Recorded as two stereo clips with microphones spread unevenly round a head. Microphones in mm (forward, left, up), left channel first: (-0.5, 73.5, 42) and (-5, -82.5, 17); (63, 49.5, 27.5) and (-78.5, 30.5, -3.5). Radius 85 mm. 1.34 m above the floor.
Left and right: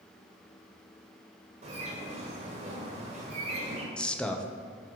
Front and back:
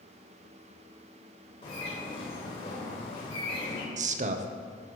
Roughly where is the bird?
Ahead right.